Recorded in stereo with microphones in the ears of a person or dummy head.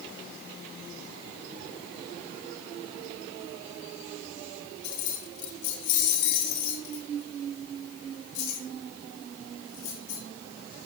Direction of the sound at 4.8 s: 70° left (ahead or behind).